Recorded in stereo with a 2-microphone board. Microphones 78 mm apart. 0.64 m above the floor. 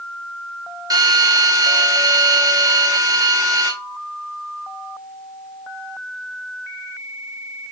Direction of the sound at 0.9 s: 60° right (ahead or behind).